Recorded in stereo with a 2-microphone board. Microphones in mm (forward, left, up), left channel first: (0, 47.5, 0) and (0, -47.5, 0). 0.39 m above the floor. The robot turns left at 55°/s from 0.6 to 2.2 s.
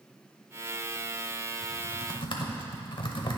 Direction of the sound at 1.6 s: 45° left (ahead or behind).